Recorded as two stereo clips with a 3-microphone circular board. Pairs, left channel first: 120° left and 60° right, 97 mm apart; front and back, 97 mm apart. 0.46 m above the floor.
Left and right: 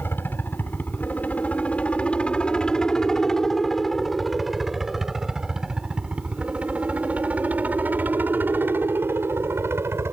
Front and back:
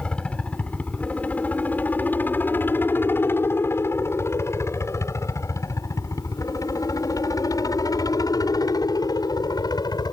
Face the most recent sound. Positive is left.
turn(degrees=-10)